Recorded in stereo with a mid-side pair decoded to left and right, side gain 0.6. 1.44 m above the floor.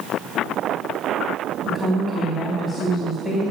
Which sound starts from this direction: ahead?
A woman speaking, at 1.6 s.